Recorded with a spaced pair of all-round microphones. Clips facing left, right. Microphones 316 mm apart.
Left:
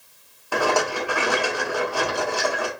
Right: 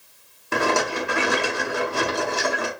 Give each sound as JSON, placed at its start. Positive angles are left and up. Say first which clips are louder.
{"t": 0.5, "sound": "a rattle", "louder": "even", "side_deg": -30, "distance_m": 0.9}